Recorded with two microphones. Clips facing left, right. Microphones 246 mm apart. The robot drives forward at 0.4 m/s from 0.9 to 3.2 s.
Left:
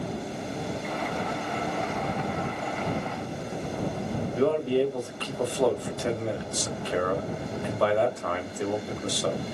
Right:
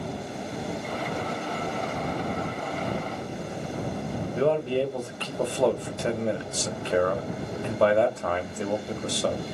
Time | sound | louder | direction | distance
4.3 | a man speaking | left 1 dB | 25° right (ahead or behind) | 0.6 m